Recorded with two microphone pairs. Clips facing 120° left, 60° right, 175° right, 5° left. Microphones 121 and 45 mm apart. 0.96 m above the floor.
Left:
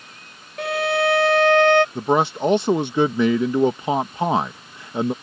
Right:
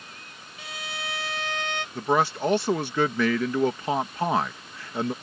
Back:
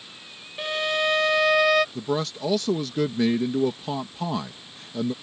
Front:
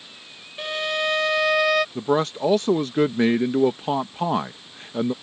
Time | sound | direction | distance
0.6 | a violin | 95° left | ?
1.9 | a man speaking | 55° left | ?